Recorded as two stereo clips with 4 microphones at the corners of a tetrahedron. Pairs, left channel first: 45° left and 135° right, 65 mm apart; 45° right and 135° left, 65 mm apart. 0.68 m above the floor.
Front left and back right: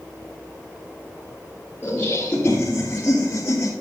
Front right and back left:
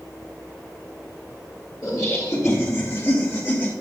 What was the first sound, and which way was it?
Laughter, 20° right.